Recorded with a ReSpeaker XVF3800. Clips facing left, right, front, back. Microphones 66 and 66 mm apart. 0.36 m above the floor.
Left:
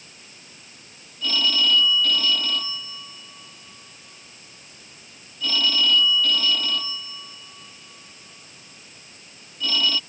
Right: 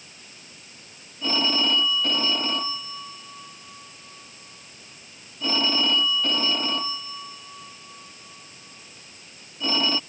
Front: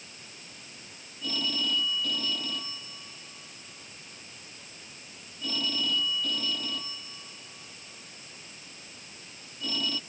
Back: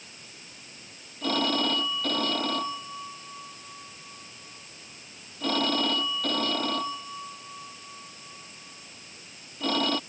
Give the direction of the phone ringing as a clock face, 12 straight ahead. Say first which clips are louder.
Left 1 dB, back 7 dB; 5 o'clock.